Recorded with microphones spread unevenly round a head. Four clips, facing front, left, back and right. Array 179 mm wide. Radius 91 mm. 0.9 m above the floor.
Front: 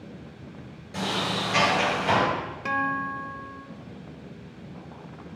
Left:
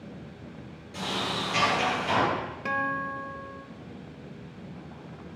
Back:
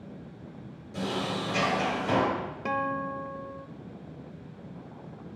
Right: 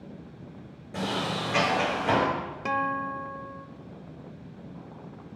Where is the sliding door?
50° right, 9 m.